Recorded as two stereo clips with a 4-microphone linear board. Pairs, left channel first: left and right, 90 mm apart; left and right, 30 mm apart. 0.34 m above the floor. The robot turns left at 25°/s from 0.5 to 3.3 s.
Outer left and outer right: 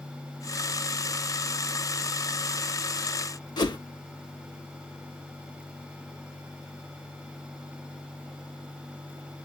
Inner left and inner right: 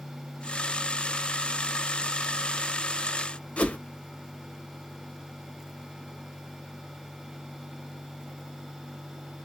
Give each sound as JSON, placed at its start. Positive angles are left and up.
{"t": 3.6, "sound": "a whoosh", "side_deg": 50, "distance_m": 0.5}